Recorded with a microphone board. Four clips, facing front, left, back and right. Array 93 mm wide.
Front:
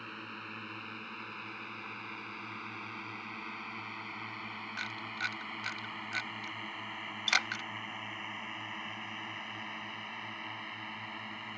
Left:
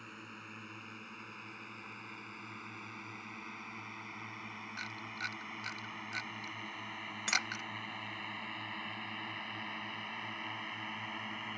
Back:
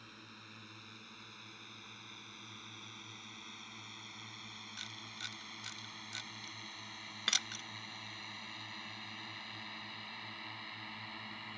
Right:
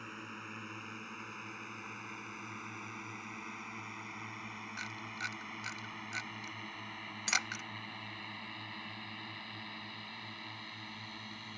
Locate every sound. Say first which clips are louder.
0.0 s a drone: right 4 dB, front 11 dB; 25° right; by 11.6 s 60° left
4.8 s a camera shutter: even, front 12 dB; 5° right
7.3 s cutlery clinking: even, front 9 dB; 150° left